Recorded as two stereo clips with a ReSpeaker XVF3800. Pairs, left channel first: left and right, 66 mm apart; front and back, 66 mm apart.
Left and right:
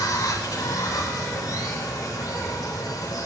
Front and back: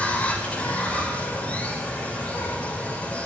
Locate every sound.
0.0 s running water: 70° left, 1.8 m